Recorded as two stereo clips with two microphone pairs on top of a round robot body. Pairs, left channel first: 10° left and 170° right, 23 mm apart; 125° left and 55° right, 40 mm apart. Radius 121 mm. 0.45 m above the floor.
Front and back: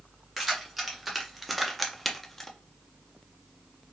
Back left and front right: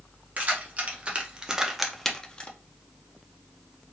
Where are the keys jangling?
85° right, 1.1 m; by 2.5 s 65° left, 0.6 m.